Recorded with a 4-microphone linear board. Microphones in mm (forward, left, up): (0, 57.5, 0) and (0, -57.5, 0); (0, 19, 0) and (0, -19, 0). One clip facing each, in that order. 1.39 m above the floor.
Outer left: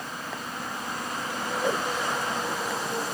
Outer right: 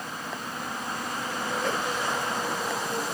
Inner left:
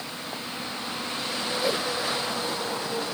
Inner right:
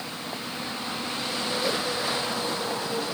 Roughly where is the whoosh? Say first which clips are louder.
Outer left 3 dB, inner left 2 dB; centre.